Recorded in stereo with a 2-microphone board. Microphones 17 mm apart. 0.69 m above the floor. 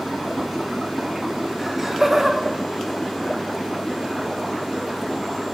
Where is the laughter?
5° right (ahead or behind), 1.3 m; by 5.1 s 75° right (ahead or behind), 3 m.